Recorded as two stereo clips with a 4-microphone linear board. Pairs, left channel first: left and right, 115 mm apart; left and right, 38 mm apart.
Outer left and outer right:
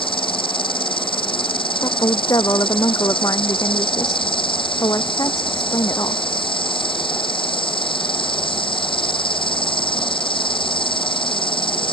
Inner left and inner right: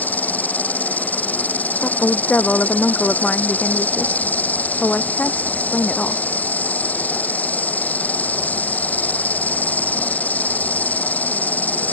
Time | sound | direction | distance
0.0 | an insect | 50° left (ahead or behind) | ?
1.8 | a woman speaking | 30° left (ahead or behind) | ?